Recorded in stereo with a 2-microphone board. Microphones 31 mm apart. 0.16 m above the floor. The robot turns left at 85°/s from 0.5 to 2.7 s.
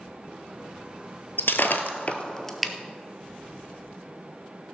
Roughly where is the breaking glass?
Left.